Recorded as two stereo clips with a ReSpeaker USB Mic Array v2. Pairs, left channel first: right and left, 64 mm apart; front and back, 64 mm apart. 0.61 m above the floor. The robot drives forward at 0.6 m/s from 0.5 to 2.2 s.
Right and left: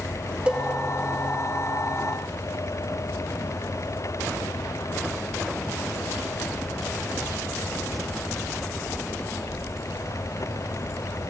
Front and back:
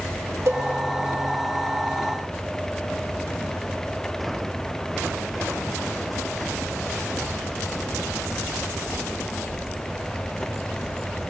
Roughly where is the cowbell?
Behind.